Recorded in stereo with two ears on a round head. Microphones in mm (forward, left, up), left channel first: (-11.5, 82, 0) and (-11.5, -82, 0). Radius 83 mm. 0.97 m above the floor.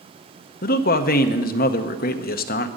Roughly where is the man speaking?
Left.